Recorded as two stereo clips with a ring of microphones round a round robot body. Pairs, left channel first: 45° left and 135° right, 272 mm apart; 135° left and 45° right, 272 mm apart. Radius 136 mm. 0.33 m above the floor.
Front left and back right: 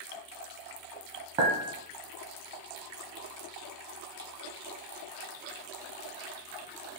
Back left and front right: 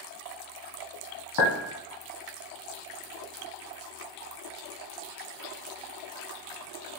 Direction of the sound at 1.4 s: 160° left.